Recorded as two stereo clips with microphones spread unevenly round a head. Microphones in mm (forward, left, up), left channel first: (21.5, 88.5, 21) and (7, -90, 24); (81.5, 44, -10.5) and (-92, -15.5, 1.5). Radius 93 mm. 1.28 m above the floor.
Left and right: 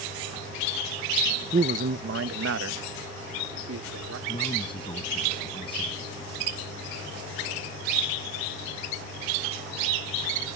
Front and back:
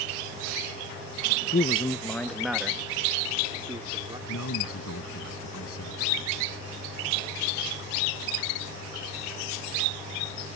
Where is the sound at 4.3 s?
25° left.